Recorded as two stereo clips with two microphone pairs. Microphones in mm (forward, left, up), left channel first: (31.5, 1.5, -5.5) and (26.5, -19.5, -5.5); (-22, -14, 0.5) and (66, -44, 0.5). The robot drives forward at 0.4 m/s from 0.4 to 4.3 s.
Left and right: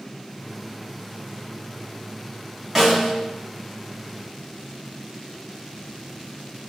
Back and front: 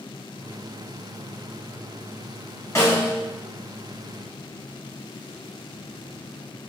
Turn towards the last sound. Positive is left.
turn(degrees=-170)